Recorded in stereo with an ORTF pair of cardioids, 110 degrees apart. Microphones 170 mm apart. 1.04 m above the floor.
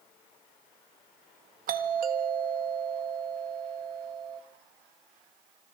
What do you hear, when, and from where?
1.7 s a doorbell: 60° right, 1.7 m